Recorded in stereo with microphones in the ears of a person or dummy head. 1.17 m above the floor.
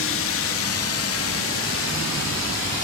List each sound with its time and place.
0.0 s a drone: 60° left (ahead or behind); by 2.8 s 55° left (ahead or behind)